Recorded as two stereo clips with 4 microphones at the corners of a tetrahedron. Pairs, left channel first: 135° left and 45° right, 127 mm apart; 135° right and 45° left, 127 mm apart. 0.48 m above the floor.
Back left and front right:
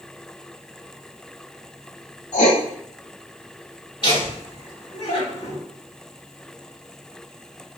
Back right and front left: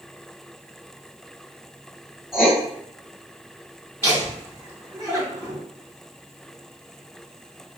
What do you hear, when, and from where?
2.3 s writing: 130° left, 1.1 m
4.0 s laughter: 110° left, 1.3 m